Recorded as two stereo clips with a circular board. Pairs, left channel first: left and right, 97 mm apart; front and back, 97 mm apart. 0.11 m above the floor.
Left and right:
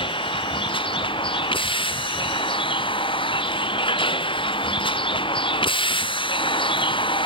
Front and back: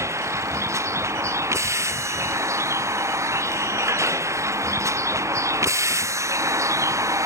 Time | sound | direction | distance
0.0 | a vehicle | 120° left | ?